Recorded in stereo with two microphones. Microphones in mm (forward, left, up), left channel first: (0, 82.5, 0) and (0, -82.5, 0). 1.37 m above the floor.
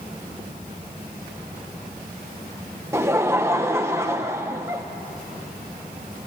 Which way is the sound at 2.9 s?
15° right (ahead or behind).